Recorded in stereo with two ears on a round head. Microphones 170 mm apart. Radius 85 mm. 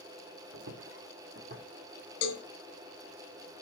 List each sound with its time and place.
0.5 s footsteps: 70° right (ahead or behind), 1.3 m; by 1.7 s 40° right (ahead or behind), 1.7 m
2.2 s a cowbell: 65° left (ahead or behind), 0.8 m